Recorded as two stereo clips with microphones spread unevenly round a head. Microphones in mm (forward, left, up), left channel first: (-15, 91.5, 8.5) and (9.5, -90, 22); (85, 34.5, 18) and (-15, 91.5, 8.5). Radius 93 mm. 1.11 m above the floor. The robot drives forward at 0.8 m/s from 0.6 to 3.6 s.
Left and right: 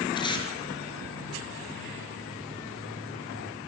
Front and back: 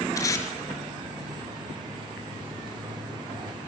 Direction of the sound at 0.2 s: 30° left.